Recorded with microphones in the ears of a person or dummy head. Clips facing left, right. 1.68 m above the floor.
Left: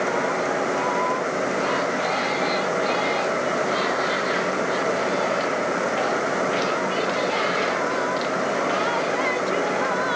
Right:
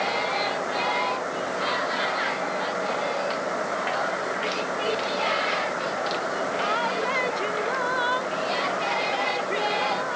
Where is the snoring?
I don't hear snoring.